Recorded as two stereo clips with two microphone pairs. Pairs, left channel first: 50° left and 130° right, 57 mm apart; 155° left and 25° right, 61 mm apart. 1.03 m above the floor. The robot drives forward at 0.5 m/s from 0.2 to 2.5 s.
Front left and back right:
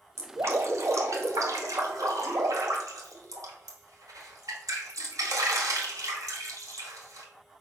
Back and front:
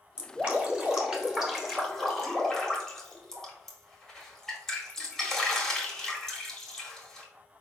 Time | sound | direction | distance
0.2 | dripping | 90° right | 1.6 m